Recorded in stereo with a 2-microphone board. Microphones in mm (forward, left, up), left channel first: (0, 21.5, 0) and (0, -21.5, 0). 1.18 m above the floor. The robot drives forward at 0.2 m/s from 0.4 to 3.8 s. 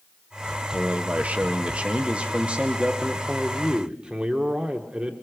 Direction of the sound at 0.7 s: 35° right (ahead or behind).